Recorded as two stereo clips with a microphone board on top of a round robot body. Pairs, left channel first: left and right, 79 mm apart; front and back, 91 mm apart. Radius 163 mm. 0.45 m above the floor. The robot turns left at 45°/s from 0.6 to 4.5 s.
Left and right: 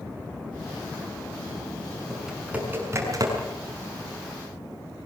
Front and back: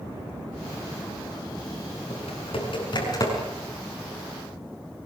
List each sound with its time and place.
2.1 s typing on a keyboard: 5° left, 6.5 m; by 3.3 s 50° right, 6.5 m